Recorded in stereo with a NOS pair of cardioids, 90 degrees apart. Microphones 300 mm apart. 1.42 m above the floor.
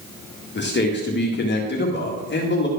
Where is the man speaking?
35° left, 1.9 m.